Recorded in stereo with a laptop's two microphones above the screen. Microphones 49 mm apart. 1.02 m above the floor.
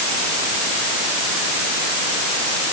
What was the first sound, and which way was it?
Only background noise.